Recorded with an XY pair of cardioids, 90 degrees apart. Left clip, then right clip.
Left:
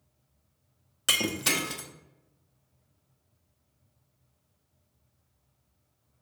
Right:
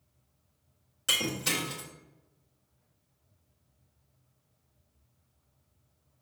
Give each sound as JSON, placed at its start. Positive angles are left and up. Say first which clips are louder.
{"t": 1.1, "sound": "breaking glass", "louder": "left 3 dB", "azimuth_deg": 55, "distance_m": 1.1}